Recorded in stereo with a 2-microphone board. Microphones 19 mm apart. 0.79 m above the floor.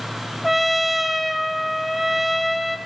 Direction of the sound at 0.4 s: 5° right (ahead or behind).